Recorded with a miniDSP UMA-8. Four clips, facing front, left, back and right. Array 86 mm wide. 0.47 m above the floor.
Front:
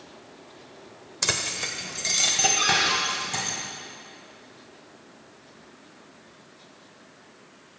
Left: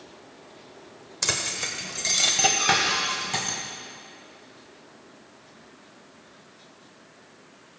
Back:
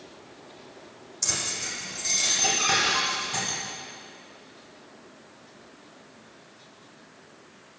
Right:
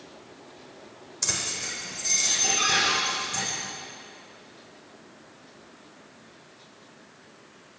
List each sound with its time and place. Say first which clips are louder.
1.2 s keys jangling: left 4 dB, front 4 dB; 30° left, 1.2 m; by 3.6 s 80° left, 3 m
2.6 s a cupboard door: left 1 dB, even; 30° right, 4.5 m